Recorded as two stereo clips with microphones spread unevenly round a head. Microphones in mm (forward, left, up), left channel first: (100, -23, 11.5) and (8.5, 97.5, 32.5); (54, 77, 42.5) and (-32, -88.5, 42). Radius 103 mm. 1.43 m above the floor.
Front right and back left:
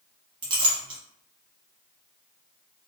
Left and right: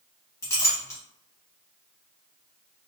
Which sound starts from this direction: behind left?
A clink, at 0.4 s.